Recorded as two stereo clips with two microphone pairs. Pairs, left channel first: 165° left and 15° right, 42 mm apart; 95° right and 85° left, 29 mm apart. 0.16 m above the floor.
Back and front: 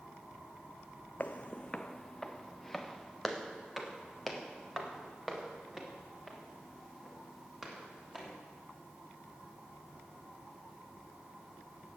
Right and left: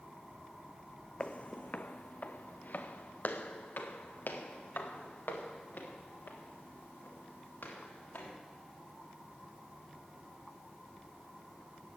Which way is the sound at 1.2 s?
145° right.